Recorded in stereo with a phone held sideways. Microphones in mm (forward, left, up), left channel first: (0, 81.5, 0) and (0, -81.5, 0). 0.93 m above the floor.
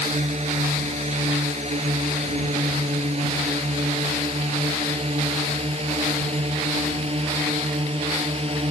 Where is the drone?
45° right (ahead or behind); by 8.7 s 35° right (ahead or behind).